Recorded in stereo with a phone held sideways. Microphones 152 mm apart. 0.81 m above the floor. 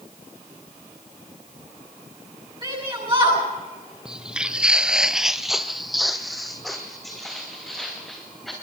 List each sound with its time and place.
2.6 s a shout: 35° right (ahead or behind), 9 m
4.0 s footsteps: 5° right (ahead or behind), 1.3 m; by 8.5 s centre (ahead or behind), 5 m